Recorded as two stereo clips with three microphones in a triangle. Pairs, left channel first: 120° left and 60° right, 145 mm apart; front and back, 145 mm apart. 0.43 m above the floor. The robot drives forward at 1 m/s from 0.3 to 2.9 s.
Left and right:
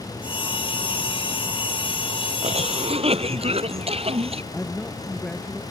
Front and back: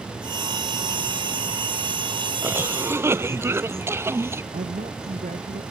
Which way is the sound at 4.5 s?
155° right.